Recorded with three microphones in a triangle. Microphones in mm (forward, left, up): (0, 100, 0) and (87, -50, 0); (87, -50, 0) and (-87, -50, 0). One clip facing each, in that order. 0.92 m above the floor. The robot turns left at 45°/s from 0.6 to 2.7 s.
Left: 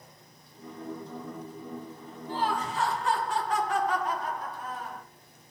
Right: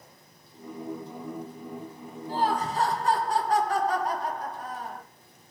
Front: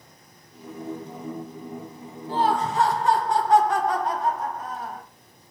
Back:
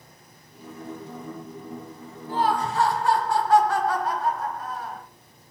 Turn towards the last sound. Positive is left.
turn(degrees=-60)